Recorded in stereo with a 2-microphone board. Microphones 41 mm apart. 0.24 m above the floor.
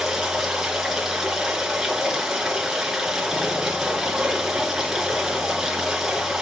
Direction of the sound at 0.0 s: 5° right (ahead or behind).